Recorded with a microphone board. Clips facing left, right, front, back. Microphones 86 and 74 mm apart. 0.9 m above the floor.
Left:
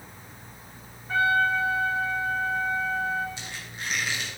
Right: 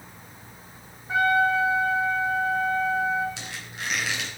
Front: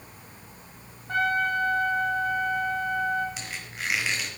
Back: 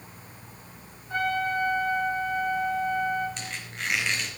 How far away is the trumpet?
About 3.5 m.